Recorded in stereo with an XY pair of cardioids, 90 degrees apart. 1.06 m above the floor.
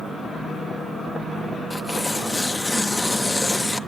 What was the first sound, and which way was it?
Tearing paper, 20° left.